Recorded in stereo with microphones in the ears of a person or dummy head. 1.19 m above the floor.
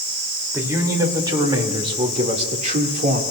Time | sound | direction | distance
0.5 | a man speaking | 15° right (ahead or behind) | 3 m